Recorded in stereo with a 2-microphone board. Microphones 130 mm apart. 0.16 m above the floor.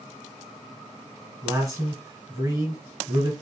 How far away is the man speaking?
About 1.5 m.